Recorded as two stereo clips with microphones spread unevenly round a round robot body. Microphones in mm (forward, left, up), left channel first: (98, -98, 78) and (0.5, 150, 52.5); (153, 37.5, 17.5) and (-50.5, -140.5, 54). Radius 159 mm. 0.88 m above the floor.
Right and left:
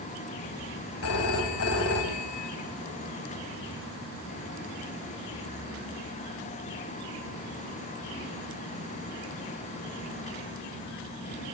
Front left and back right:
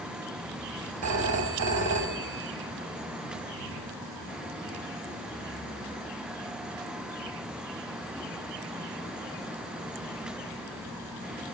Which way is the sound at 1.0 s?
115° right.